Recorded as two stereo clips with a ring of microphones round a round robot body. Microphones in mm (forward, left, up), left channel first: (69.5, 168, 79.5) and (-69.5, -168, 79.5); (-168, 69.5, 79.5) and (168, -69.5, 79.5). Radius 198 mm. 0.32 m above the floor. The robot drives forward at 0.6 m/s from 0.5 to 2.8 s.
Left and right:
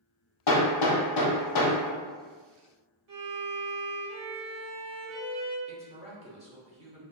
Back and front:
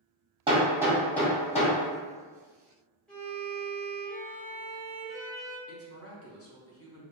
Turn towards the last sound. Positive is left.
turn(degrees=-175)